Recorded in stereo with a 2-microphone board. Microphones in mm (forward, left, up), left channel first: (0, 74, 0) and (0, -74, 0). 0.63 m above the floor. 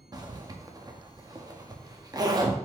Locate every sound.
0.1 s a zipper: 25° right (ahead or behind), 0.6 m